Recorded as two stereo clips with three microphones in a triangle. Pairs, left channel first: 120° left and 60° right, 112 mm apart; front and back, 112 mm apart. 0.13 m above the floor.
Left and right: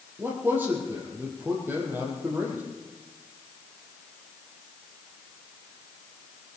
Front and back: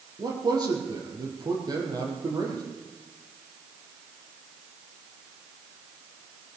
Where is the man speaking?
130° right, 5 m.